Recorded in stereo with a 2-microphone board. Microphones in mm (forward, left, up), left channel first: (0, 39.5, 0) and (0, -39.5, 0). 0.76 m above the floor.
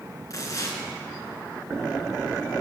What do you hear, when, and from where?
0.3 s tearing paper: 45° left (ahead or behind), 3 m